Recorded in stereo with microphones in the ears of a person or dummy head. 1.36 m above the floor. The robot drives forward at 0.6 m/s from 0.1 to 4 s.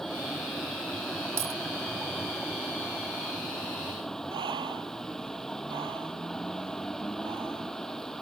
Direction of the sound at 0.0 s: 5° left (ahead or behind).